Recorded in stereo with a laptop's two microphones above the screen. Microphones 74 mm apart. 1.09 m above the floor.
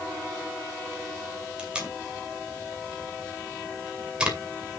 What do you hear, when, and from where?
1.6 s tape being pulled: 10° right (ahead or behind), 2 m